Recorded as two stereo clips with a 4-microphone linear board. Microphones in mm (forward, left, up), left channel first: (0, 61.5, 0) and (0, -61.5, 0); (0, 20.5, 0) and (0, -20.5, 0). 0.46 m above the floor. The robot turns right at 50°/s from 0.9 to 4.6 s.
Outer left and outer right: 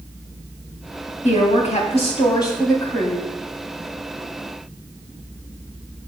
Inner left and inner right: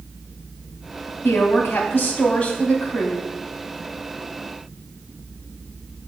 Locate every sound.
1.2 s a woman speaking: 85° left, 2.5 m; by 3.3 s 175° right, 2.5 m